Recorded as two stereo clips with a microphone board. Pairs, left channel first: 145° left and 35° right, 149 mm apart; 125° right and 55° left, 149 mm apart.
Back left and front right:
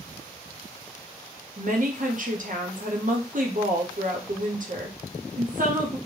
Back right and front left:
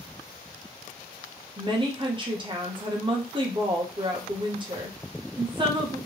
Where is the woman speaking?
Straight ahead, 0.8 m.